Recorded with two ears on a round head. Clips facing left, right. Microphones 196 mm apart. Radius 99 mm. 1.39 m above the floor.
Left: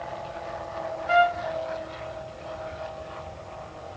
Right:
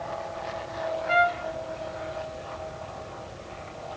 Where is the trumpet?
15° left (ahead or behind), 0.8 m.